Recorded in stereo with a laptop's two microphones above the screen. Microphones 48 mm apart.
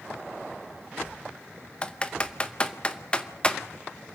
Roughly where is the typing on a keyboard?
Left.